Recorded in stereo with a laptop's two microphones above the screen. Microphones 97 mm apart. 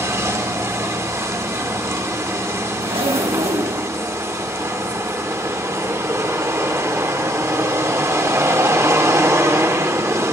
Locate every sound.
0.0 s a machine running: 30° right (ahead or behind), 0.8 m
2.8 s a zipper: 75° right (ahead or behind), 1.2 m